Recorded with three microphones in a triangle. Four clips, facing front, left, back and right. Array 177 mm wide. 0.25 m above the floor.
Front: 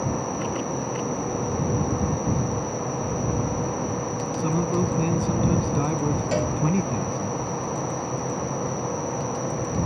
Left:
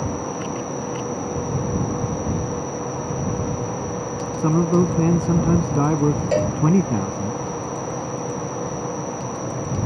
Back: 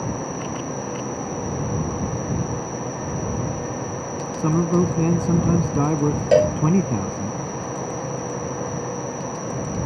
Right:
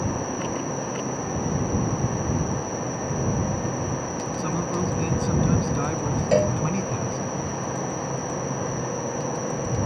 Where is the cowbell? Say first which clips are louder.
Even, back 14 dB; straight behind.